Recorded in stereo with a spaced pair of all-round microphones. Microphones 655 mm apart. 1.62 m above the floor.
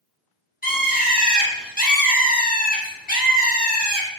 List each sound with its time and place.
0.6 s a bird: 15° left (ahead or behind), 0.6 m